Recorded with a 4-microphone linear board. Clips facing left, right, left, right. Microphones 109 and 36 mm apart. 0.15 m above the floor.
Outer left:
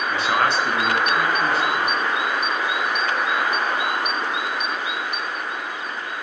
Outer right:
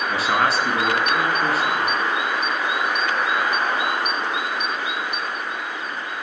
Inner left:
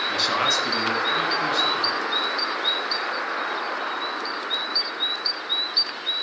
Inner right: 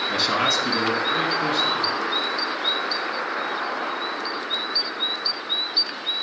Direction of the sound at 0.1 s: Centre (ahead or behind).